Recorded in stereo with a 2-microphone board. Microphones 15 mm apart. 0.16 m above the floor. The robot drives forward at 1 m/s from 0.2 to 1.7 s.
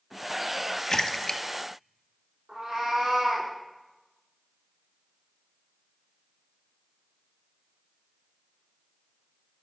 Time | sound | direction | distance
0.9 | a splash | 35° left (ahead or behind) | 0.7 m
2.5 | a cat meowing | 80° right | 4.5 m